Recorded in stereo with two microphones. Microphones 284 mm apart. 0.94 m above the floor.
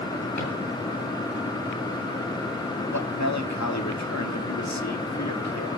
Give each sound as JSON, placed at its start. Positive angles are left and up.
{"t": 0.4, "sound": "a drawer", "side_deg": 85, "distance_m": 9.0}
{"t": 2.9, "sound": "a man speaking", "side_deg": 70, "distance_m": 2.0}